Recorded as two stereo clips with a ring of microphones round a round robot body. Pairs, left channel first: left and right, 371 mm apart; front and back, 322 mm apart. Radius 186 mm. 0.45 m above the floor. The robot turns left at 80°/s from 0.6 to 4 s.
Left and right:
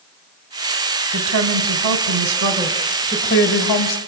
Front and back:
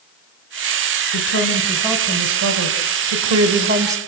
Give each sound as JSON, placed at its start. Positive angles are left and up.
{"t": 1.1, "sound": "a woman speaking", "azimuth_deg": -35, "distance_m": 2.0}